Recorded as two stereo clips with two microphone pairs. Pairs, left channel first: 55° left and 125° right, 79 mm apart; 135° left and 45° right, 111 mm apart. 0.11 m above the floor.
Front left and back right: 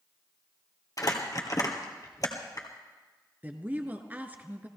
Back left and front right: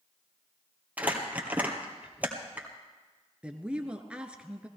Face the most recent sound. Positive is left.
turn(degrees=-115)